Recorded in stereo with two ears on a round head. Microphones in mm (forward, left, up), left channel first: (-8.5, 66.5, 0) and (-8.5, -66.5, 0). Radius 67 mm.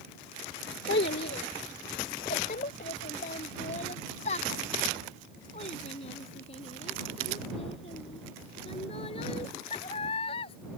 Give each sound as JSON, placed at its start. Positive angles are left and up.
{"t": 0.9, "sound": "a child speaking", "side_deg": 80}